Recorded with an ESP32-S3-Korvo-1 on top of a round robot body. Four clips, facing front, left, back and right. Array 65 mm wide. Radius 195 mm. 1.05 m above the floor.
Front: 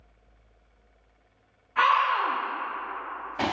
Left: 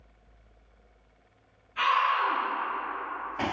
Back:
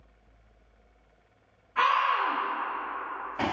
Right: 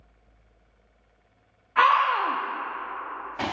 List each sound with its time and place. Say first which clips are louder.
1.8 s a scream: right 5 dB, front 2 dB; 85° right, 0.5 m